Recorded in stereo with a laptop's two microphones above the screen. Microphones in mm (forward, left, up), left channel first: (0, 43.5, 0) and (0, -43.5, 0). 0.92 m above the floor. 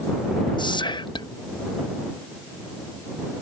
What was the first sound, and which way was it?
Whispering, 60° left (ahead or behind).